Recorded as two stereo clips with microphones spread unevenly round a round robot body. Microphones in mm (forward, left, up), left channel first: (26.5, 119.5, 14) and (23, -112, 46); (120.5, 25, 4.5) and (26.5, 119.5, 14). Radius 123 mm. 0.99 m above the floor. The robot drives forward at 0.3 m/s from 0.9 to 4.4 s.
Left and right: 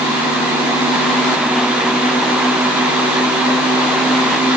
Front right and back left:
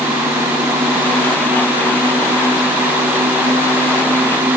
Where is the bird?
I don't hear a bird.